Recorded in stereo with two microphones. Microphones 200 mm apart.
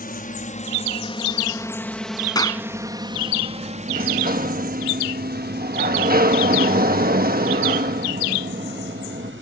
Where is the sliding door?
50° right (ahead or behind).